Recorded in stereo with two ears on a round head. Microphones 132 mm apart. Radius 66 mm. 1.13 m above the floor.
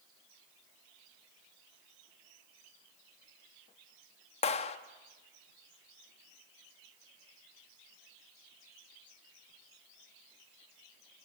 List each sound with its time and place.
4.4 s a clap: 45° left (ahead or behind), 1.2 m